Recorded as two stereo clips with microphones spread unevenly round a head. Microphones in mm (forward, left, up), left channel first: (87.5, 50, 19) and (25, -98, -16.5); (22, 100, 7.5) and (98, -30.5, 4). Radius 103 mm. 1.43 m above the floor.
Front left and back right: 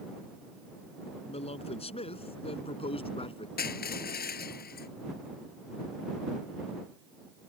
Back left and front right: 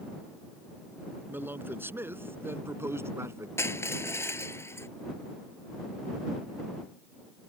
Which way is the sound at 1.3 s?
15° left.